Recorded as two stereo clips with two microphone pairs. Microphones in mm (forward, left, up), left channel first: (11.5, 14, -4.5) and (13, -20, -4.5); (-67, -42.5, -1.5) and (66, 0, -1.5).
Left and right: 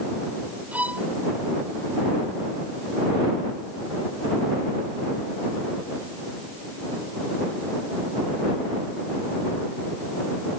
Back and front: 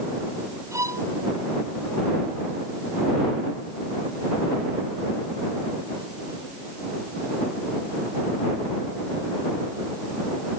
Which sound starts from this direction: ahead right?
A violin, at 0.7 s.